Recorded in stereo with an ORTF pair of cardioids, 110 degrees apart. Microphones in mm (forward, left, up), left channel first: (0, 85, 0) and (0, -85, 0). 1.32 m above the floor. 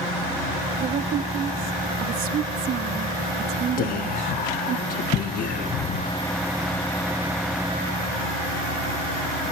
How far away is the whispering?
About 1.4 m.